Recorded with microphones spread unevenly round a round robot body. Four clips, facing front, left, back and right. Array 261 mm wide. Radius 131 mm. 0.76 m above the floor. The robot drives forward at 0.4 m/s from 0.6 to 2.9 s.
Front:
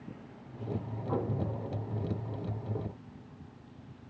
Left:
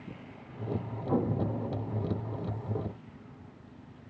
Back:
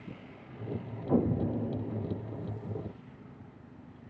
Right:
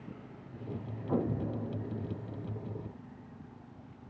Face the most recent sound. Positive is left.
turn(degrees=170)